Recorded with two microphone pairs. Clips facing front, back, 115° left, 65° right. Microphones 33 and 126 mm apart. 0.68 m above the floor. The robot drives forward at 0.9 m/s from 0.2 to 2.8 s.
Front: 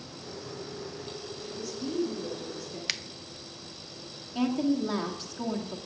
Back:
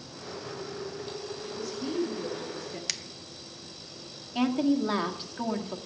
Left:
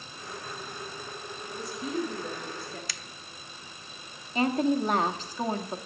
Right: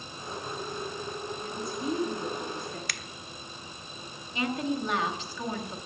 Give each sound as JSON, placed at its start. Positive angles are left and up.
{"t": 1.4, "sound": "a woman speaking", "azimuth_deg": -95, "distance_m": 6.0}
{"t": 2.9, "sound": "a finger snap", "azimuth_deg": -60, "distance_m": 0.6}
{"t": 4.3, "sound": "a woman speaking", "azimuth_deg": 140, "distance_m": 1.5}